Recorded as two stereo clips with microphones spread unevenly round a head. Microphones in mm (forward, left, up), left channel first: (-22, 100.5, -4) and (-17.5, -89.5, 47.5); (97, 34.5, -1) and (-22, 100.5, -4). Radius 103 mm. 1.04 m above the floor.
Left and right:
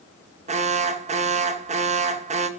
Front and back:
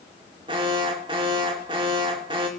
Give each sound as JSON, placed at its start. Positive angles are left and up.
{"t": 0.5, "sound": "an alarm", "azimuth_deg": -150, "distance_m": 2.5}